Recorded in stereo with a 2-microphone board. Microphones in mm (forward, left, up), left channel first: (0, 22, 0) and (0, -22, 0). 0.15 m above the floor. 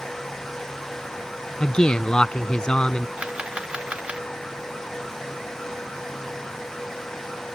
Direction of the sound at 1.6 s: 20° left (ahead or behind).